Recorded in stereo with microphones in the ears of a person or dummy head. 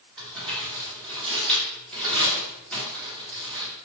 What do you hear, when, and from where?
0.2 s crumpling: 5° left (ahead or behind), 1.4 m